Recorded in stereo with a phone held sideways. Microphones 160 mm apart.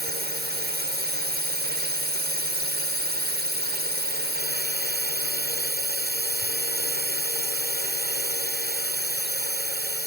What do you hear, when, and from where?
0.0 s a drone: 80° right